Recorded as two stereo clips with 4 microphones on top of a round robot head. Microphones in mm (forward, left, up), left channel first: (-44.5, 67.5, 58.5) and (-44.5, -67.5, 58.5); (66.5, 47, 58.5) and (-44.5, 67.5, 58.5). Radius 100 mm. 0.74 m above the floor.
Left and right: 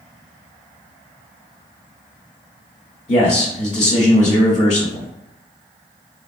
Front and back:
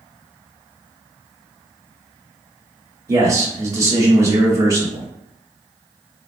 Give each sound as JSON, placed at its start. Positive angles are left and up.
{"t": 3.1, "sound": "a man speaking", "azimuth_deg": 110, "distance_m": 1.8}